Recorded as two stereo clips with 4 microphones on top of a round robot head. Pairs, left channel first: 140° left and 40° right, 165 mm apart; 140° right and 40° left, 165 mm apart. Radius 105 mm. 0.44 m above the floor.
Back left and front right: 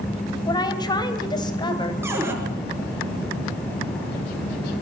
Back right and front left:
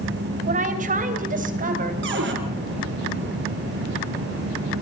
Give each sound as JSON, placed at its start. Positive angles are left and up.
{"t": 0.5, "sound": "a woman speaking", "azimuth_deg": 75, "distance_m": 3.0}
{"t": 2.0, "sound": "a cupboard door", "azimuth_deg": 35, "distance_m": 5.5}